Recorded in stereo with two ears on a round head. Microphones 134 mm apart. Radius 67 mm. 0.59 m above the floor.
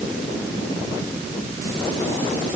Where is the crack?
I don't hear a crack.